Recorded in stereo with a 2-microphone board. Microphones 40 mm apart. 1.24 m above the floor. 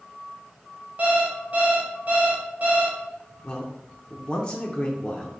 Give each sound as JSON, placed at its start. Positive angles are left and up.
{"t": 1.0, "sound": "an alarm clock", "side_deg": -35, "distance_m": 0.9}
{"t": 3.4, "sound": "a man speaking", "side_deg": 25, "distance_m": 0.6}